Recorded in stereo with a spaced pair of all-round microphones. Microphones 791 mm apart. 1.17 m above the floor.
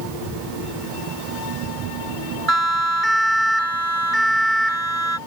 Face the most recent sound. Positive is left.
turn(degrees=-75)  # may be behind; listen again after turning